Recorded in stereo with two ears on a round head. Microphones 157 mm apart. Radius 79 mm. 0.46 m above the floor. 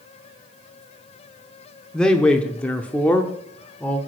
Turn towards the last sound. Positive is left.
turn(degrees=5)  # may be behind; listen again after turning